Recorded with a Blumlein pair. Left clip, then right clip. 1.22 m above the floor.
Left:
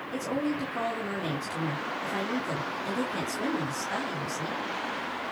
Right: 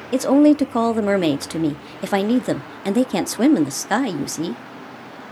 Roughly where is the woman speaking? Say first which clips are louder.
Right 16 dB; ahead right.